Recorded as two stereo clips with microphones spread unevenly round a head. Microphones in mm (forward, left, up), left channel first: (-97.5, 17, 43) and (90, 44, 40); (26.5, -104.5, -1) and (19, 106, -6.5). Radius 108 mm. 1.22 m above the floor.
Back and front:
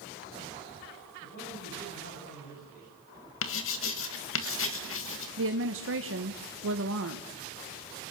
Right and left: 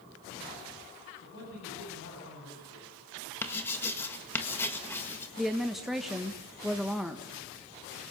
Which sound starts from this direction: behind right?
A man speaking, at 1.2 s.